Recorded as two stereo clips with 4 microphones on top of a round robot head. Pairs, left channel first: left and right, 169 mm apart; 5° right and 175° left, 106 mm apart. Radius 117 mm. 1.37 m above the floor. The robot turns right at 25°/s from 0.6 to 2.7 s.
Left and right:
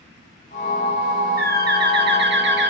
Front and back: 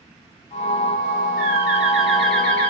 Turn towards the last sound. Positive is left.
turn(degrees=-80)